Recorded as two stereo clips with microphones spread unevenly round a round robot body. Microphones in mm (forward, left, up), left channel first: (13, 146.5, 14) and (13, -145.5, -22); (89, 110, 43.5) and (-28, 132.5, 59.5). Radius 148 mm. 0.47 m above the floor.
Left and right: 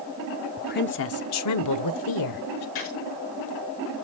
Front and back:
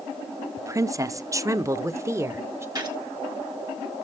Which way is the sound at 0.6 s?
130° left.